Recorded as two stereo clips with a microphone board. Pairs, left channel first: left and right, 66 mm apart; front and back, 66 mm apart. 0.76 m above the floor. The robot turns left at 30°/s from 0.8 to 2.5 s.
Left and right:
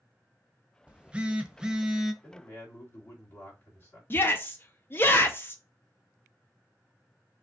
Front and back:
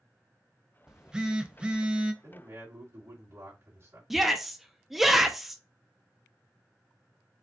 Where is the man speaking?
155° left, 2.5 m; by 4.0 s 145° left, 2.5 m.